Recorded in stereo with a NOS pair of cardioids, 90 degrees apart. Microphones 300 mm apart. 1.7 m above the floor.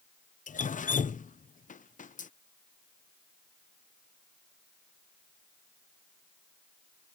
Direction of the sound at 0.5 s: 25° left.